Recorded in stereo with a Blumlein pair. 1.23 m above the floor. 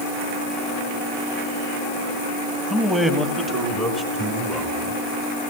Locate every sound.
2.7 s a man speaking: 5° right, 1.9 m; by 4.9 s 30° right, 5 m